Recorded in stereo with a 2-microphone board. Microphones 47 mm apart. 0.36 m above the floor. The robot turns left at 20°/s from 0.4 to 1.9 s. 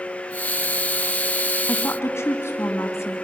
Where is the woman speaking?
65° left (ahead or behind), 3 m; by 3.1 s 70° left (ahead or behind), 3 m.